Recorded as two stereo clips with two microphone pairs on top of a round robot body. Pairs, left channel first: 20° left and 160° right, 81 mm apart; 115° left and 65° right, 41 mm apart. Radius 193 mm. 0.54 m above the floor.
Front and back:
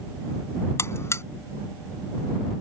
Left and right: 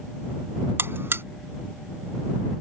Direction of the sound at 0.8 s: 40° right.